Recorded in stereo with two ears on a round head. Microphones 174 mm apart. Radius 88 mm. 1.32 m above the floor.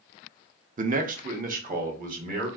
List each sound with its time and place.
0.8 s a man speaking: 40° right (ahead or behind), 0.5 m; by 2.5 s 45° right (ahead or behind), 1.4 m